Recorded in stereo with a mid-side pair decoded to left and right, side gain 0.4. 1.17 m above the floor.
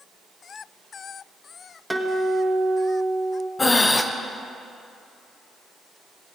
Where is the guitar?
10° right, 1.5 m.